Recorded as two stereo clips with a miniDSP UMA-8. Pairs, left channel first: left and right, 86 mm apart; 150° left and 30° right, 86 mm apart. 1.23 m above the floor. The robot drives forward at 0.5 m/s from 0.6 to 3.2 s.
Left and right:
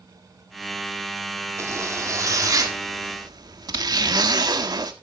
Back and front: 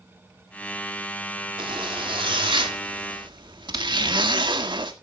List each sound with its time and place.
1.6 s a zipper: 35° right, 2 m; by 4.9 s 50° right, 1.6 m